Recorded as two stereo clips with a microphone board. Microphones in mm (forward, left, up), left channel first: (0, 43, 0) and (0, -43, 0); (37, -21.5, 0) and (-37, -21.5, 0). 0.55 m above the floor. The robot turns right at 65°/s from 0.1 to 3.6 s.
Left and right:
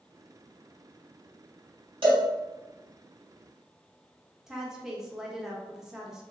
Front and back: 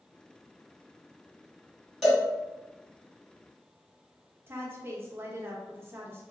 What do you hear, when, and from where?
2.0 s a cowbell: 90° right, 2.0 m; by 2.2 s 75° right, 2.0 m
4.5 s a woman speaking: 170° right, 0.6 m